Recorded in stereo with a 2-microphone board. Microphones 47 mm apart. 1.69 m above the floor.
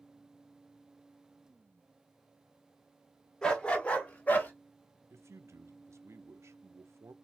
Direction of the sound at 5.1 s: 70° right (ahead or behind).